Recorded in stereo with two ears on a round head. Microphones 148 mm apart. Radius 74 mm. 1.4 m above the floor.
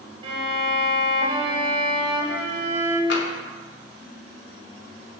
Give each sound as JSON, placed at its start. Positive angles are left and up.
{"t": 0.2, "sound": "a violin", "side_deg": -35, "distance_m": 2.5}
{"t": 3.1, "sound": "tapping", "side_deg": 75, "distance_m": 2.5}